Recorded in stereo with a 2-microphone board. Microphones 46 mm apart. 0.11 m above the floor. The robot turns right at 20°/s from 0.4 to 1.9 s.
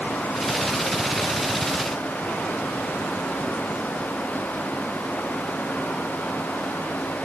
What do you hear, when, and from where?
Only background noise.